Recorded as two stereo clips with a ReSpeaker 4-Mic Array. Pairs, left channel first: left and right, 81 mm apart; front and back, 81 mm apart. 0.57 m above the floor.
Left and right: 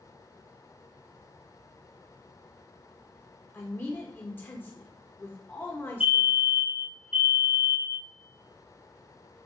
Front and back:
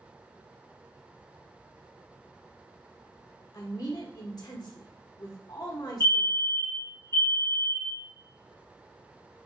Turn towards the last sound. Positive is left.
turn(degrees=-25)